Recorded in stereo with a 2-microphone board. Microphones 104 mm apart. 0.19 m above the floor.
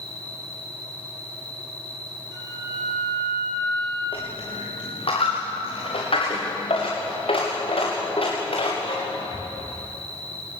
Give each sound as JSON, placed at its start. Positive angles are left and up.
{"t": 0.0, "sound": "an insect", "side_deg": 15, "distance_m": 7.0}
{"t": 2.3, "sound": "a flute", "side_deg": 30, "distance_m": 5.0}
{"t": 4.1, "sound": "a dropped coin", "side_deg": 60, "distance_m": 7.0}